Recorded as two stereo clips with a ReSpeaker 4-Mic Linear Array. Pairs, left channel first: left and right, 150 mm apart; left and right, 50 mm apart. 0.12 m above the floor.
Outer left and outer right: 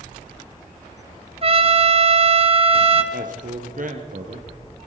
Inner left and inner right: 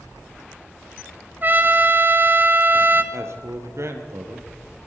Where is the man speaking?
65° right (ahead or behind), 2.5 m.